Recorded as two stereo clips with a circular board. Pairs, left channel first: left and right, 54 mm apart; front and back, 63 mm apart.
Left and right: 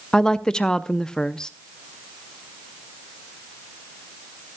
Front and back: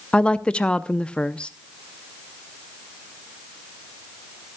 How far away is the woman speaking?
About 0.6 m.